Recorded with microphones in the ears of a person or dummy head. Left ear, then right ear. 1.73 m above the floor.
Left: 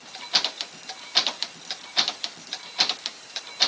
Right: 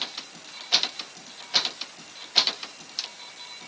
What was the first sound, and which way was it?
Only background noise.